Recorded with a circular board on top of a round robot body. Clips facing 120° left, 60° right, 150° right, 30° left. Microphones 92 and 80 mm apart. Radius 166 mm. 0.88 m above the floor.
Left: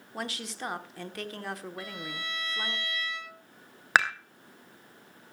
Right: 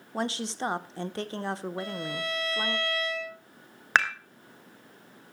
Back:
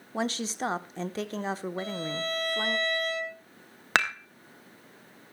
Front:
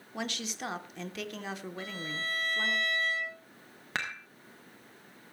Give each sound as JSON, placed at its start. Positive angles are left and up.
{"t": 0.1, "sound": "a woman speaking", "azimuth_deg": -110, "distance_m": 1.2}
{"t": 1.8, "sound": "a violin", "azimuth_deg": -115, "distance_m": 7.0}
{"t": 4.0, "sound": "dishes clattering", "azimuth_deg": -160, "distance_m": 1.4}